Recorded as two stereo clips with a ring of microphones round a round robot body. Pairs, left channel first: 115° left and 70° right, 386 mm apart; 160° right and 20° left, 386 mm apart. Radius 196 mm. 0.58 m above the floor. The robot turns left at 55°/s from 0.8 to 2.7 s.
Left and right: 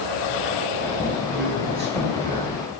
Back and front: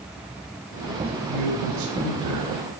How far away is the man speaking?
About 7.5 m.